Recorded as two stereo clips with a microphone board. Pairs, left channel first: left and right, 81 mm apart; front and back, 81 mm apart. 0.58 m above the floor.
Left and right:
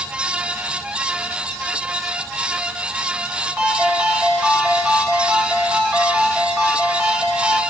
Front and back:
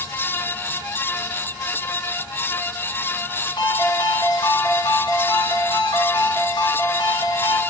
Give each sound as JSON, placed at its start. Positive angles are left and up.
{"t": 3.6, "sound": "a ringtone", "azimuth_deg": -15, "distance_m": 2.5}